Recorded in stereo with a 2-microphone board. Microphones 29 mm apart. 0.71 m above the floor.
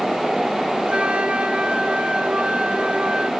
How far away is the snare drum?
No snare drum in this recording.